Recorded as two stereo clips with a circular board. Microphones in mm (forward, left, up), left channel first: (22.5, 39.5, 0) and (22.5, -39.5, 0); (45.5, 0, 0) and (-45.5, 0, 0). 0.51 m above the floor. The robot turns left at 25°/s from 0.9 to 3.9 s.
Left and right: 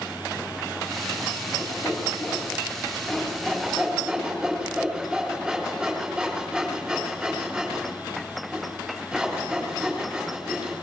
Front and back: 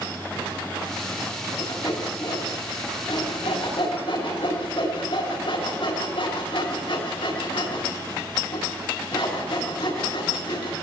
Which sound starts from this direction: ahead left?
Sawing, at 1.6 s.